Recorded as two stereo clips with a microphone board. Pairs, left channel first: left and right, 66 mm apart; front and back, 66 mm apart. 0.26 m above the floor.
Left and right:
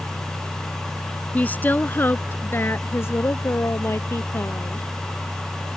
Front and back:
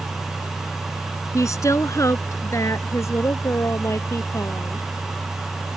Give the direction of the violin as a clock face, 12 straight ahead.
No violin in this recording.